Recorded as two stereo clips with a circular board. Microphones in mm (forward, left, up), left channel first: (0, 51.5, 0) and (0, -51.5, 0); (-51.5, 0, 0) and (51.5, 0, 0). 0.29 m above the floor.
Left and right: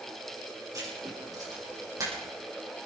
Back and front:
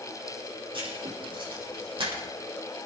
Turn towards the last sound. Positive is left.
turn(degrees=-35)